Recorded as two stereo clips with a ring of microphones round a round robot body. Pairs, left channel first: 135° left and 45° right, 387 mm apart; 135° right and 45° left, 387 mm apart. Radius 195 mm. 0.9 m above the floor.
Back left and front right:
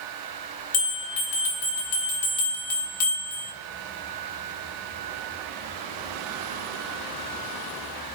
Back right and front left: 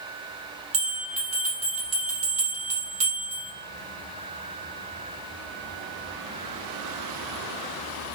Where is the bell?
120° left, 1.2 m.